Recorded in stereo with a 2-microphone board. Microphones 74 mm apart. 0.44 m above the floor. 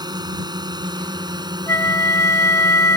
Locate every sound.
0.0 s a drone: 75° right (ahead or behind); by 3.0 s 70° right (ahead or behind)
1.7 s a flute: 40° left (ahead or behind)